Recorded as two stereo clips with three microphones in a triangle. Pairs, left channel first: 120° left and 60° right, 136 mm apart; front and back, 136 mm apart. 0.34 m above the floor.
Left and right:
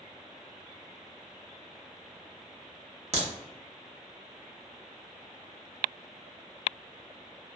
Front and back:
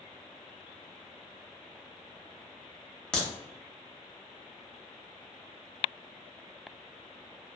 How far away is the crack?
About 0.8 m.